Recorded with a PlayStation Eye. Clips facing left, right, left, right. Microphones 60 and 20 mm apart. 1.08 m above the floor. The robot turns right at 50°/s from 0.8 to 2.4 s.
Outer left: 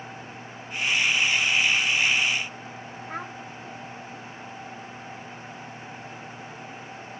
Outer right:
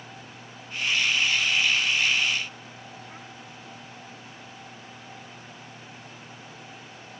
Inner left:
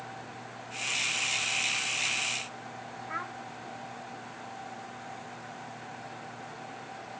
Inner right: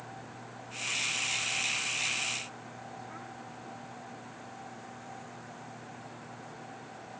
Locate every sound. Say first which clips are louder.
3.1 s a child speaking: outer left 9 dB, inner left 8 dB; 85° left